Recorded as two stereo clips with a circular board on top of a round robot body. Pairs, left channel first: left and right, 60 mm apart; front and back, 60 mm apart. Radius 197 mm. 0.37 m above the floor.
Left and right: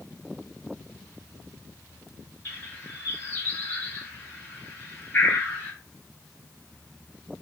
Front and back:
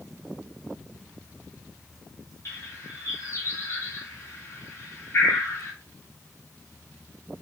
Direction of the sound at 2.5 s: 40° left.